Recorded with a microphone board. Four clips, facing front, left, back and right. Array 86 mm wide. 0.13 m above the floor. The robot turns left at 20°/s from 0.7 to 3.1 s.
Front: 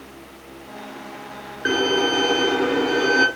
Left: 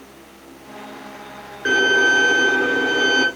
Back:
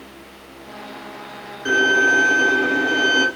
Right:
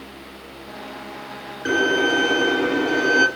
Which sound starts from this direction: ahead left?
A violin, at 1.6 s.